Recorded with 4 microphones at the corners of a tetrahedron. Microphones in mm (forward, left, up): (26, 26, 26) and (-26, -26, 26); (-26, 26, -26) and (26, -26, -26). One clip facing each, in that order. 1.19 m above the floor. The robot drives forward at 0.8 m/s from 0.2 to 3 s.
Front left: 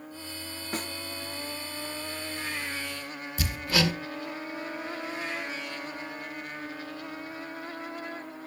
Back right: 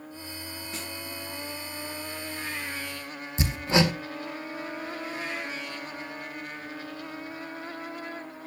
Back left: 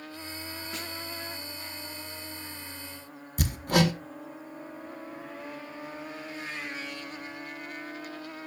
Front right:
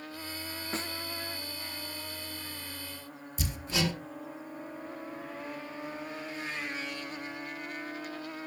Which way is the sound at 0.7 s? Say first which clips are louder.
Front left 6 dB, front right 5 dB; 10° left.